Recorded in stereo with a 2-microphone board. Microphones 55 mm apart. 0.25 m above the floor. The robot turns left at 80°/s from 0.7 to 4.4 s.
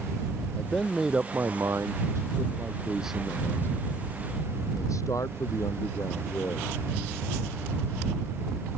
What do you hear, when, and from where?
0.6 s a man speaking: 20° left; by 6.7 s 80° left